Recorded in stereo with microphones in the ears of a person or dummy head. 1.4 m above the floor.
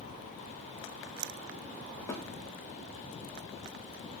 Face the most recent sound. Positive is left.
turn(degrees=5)  # may be behind; listen again after turning